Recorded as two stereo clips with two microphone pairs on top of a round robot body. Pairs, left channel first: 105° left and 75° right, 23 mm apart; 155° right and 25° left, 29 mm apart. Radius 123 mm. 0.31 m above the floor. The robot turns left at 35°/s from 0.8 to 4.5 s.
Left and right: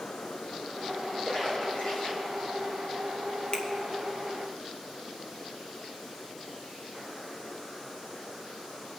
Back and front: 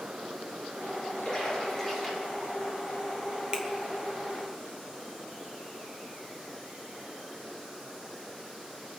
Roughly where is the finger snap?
Left.